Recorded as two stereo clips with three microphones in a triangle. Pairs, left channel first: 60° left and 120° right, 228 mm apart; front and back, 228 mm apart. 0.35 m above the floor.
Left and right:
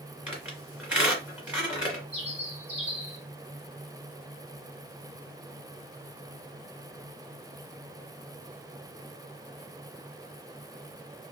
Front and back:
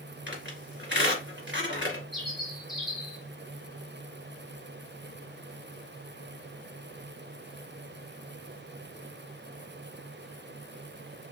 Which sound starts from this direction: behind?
A squeak, at 0.3 s.